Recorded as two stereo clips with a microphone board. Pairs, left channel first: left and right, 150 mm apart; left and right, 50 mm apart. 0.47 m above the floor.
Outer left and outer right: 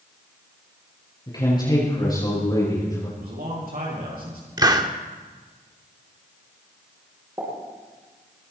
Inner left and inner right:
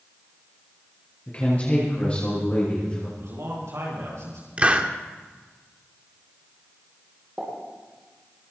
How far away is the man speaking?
About 9 m.